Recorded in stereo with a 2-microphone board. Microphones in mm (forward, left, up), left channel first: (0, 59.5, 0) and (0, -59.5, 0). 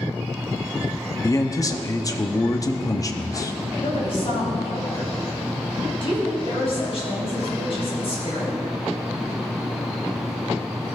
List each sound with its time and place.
1.2 s a man speaking: 30° left (ahead or behind), 0.7 m
3.8 s a woman speaking: 50° left (ahead or behind), 4 m